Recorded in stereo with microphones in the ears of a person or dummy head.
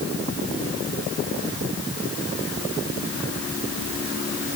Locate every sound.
Only background noise.